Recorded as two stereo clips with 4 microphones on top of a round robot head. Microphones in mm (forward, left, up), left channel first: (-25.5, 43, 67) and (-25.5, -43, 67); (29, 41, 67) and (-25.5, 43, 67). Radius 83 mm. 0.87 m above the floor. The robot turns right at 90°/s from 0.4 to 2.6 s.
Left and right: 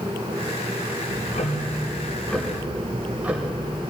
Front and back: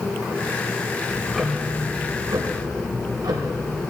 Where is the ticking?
55° left, 1.1 m; by 3.8 s 165° right, 1.1 m.